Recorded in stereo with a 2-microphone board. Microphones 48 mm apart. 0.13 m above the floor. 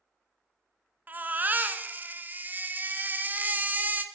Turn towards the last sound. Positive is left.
turn(degrees=-35)  # may be behind; listen again after turning